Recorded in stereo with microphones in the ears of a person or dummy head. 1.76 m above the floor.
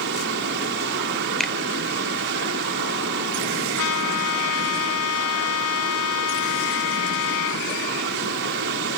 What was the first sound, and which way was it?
A fan, 65° right (ahead or behind).